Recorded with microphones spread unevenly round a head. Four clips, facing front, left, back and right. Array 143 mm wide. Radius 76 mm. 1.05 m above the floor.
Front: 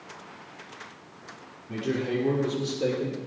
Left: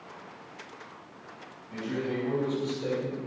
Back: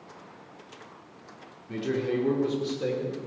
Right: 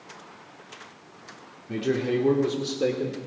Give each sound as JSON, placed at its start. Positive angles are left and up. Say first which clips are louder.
{"t": 1.7, "sound": "a man speaking", "louder": "right 7 dB, even", "azimuth_deg": -100, "distance_m": 3.5}